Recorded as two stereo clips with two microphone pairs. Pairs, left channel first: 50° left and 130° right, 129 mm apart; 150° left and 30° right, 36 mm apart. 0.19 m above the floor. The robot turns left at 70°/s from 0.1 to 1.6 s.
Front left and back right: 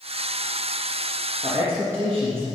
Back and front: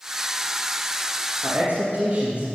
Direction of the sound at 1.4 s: 50° right.